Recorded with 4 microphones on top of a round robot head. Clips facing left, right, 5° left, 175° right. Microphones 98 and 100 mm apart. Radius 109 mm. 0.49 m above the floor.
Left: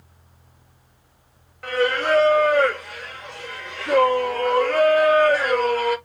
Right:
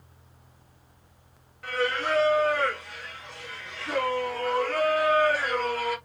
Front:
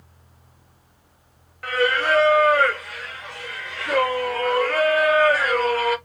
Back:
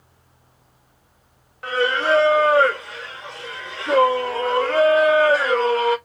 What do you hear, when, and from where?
1.6 s singing: 120° left, 1.0 m